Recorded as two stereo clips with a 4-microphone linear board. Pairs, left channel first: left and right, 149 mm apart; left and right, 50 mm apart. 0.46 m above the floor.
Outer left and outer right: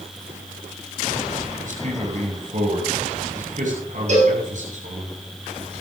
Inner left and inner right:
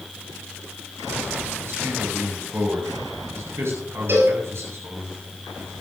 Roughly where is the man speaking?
Right.